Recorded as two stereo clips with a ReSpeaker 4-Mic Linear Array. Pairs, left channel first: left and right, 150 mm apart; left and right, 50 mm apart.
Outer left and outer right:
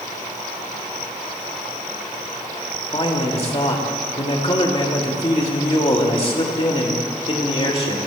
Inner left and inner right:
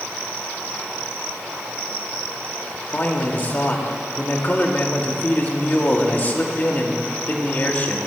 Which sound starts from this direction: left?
A man speaking, at 2.9 s.